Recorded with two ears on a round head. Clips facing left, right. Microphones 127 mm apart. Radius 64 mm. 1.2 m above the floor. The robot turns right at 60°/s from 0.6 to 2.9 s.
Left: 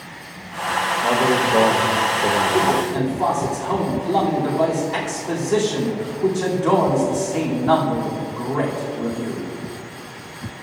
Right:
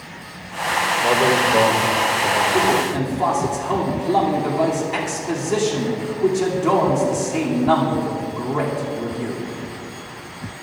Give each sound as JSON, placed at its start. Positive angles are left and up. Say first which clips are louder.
{"t": 1.0, "sound": "a man speaking", "louder": "right 1 dB", "azimuth_deg": -15, "distance_m": 1.1}
{"t": 2.5, "sound": "a man speaking", "louder": "even", "side_deg": 10, "distance_m": 2.5}